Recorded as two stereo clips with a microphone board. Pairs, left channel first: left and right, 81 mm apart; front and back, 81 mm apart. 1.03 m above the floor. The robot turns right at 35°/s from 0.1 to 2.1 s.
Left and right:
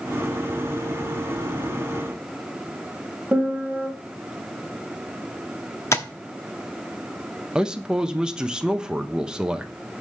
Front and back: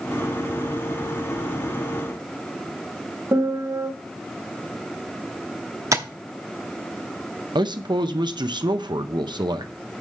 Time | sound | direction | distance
3.3 | a piano | 150° right | 1.2 m
5.9 | tapping | 140° left | 0.8 m
7.5 | a man speaking | 170° right | 0.7 m